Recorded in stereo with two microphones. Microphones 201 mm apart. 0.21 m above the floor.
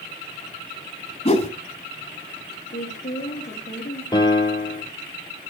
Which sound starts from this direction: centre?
A piano, at 4.1 s.